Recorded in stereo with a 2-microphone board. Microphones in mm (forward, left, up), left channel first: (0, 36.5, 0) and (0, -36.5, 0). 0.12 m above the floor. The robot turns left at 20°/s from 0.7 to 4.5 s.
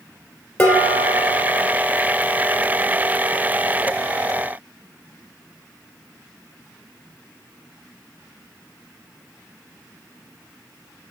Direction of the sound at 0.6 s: 15° left (ahead or behind).